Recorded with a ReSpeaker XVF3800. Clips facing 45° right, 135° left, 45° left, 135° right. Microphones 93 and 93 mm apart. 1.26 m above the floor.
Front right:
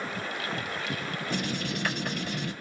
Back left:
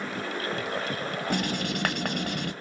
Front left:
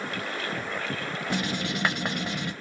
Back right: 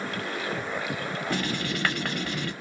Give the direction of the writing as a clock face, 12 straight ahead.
8 o'clock.